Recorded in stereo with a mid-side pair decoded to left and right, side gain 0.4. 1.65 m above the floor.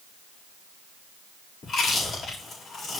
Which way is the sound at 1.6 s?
65° left.